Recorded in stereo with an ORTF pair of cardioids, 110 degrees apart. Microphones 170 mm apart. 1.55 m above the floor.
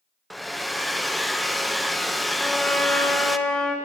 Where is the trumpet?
5° left, 1.9 m.